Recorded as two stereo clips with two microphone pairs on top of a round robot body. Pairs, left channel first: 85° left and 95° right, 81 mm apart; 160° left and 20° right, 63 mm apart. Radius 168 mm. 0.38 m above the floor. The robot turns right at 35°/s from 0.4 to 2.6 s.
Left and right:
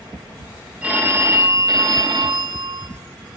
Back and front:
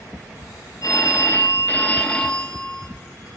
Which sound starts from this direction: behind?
A phone ringing, at 0.8 s.